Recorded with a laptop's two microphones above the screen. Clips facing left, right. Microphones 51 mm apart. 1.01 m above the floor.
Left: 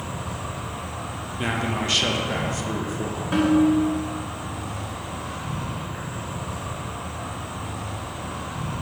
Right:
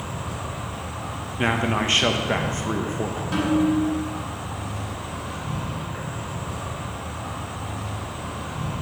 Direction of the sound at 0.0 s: 5° left (ahead or behind).